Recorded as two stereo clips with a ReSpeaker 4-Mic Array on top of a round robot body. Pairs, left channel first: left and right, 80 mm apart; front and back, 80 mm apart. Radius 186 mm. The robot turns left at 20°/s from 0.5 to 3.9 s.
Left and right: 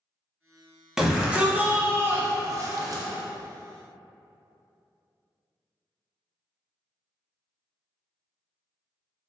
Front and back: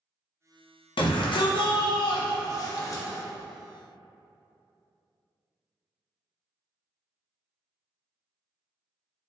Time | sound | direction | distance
1.0 | a shout | 5° right | 0.7 m